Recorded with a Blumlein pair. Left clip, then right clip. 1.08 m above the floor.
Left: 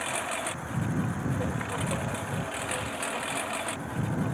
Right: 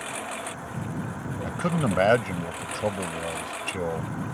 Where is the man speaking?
40° right.